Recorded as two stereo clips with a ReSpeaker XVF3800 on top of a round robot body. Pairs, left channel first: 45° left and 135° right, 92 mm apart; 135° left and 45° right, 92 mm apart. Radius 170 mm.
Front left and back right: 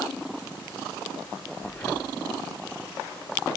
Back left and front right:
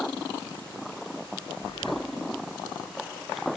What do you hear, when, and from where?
1.6 s breathing: 115° left, 3 m